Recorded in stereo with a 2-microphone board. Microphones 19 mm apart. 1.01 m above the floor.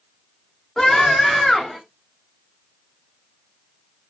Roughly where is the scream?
Left.